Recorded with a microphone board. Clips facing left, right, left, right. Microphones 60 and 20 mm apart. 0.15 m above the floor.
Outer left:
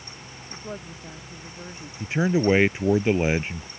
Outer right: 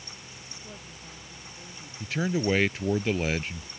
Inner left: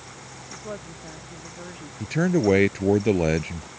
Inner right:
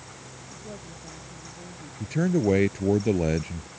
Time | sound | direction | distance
0.5 | a woman speaking | 50° left (ahead or behind) | ?
2.0 | a man speaking | 25° left (ahead or behind) | ?